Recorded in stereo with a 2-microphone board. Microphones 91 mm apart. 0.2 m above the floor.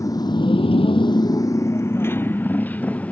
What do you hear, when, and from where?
0.0 s a motorcycle: 40° left (ahead or behind); by 3.1 s 15° left (ahead or behind)